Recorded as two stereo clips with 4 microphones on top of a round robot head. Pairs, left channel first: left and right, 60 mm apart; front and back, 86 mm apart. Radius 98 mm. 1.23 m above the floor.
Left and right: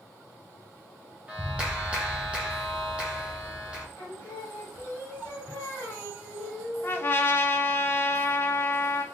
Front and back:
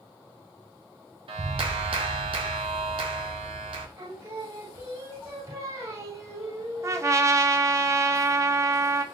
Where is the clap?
165° right, 0.6 m.